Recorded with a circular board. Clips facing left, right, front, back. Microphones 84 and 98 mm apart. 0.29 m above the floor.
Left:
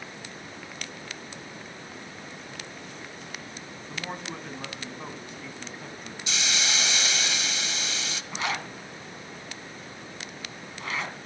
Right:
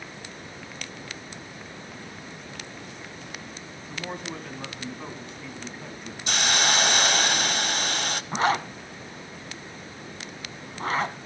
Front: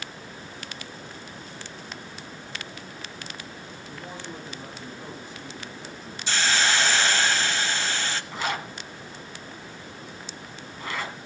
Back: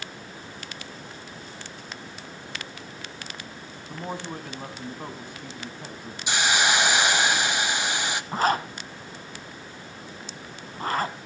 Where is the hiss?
110° right, 0.5 m.